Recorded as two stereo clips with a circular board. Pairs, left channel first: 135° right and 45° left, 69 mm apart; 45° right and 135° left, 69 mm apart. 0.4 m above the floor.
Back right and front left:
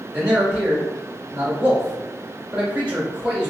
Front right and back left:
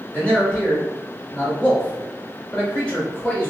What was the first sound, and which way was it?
A man speaking, 5° right.